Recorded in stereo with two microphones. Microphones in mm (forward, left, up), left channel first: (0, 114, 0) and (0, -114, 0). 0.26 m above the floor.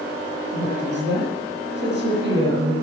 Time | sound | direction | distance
0.5 | a woman speaking | 50° right (ahead or behind) | 7.5 m